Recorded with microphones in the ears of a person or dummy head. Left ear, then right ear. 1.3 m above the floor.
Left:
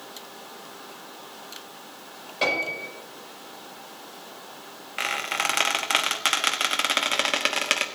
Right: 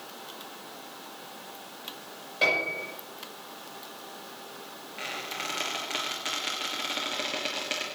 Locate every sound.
2.4 s a piano: 5° left (ahead or behind), 6.5 m
5.0 s a squeak: 45° left (ahead or behind), 1.1 m